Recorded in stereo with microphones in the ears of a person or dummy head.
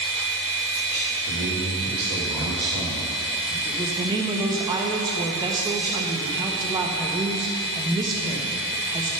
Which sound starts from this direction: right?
A man speaking, at 1.3 s.